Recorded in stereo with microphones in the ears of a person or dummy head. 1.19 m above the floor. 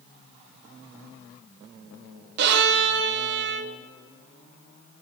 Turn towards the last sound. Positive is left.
turn(degrees=-55)  # may be behind; listen again after turning